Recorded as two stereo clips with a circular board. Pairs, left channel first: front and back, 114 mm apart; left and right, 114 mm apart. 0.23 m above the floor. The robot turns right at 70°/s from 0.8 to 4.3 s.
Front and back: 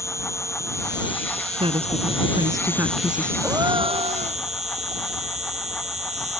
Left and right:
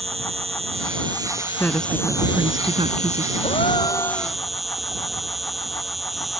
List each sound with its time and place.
0.0 s an insect: 65° right; by 6.4 s straight behind
1.6 s a woman speaking: 160° left; by 3.3 s 80° right
3.4 s a gasp: 105° left; by 4.4 s 170° left